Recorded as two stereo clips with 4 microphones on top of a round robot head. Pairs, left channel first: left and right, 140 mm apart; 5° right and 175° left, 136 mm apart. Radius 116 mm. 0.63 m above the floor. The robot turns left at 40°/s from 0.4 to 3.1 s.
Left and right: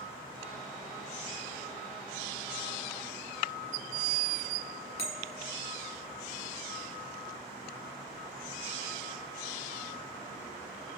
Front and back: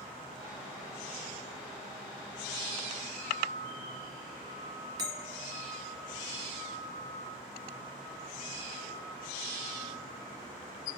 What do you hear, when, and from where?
5.0 s a bell: 120° left, 1.8 m